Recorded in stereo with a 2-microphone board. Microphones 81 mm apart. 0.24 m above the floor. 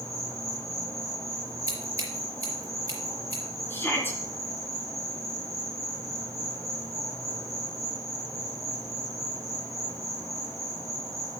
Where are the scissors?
45° right (ahead or behind), 4.5 m.